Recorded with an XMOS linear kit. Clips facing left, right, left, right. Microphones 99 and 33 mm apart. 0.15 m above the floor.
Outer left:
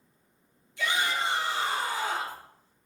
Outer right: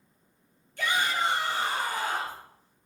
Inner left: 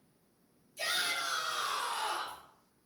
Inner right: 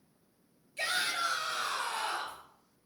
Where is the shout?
45° right (ahead or behind), 3 m.